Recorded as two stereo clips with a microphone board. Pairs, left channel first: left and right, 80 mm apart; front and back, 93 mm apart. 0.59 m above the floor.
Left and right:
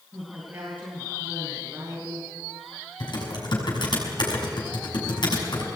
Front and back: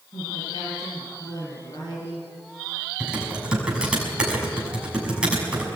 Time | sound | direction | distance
0.1 | a woman speaking | 30° right | 7 m
3.0 | typing on a keyboard | 100° left | 6 m